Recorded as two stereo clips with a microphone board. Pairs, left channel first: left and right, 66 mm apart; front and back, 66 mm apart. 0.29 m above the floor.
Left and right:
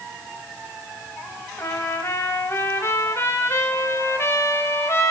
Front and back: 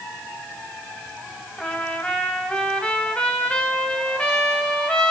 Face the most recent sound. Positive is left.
turn(degrees=70)